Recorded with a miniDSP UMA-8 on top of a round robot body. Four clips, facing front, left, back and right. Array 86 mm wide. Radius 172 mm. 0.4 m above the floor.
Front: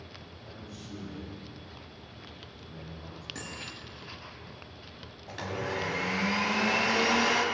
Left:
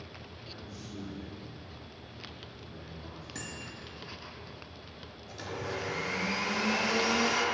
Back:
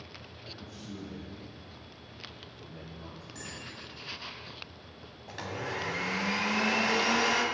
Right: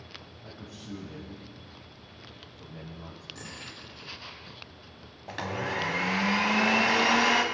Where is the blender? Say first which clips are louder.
Right 5 dB, front 3 dB; 90° right, 1.5 m.